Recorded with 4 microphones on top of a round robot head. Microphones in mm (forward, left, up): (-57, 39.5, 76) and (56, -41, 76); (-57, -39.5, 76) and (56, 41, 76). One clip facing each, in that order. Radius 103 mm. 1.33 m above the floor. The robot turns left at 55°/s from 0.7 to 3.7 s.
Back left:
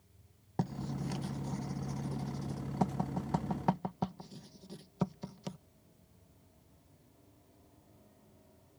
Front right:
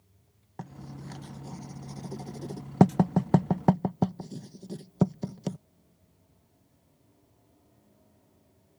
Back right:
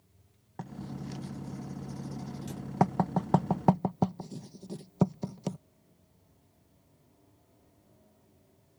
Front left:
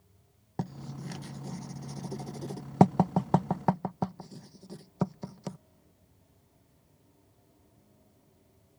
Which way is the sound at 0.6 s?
90° left.